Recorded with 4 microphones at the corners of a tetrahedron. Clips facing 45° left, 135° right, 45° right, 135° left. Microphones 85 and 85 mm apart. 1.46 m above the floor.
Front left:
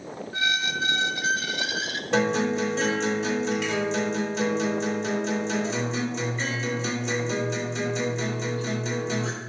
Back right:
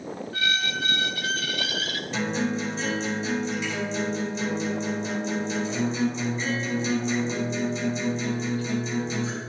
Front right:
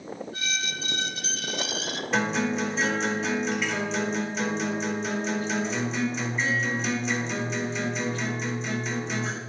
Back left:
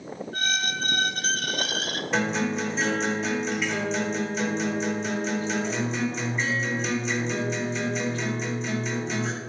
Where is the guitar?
45° left, 3 m.